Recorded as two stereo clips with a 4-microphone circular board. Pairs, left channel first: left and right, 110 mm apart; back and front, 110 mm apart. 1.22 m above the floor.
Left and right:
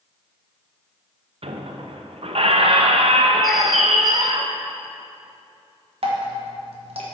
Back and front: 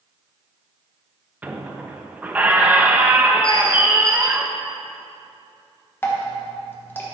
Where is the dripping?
110° right, 1.2 m.